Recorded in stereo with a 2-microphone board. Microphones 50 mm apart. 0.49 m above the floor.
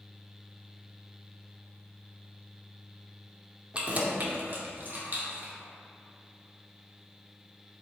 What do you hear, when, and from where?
3.7 s keys jangling: 25° right (ahead or behind), 0.5 m; by 5.5 s 45° right (ahead or behind), 0.9 m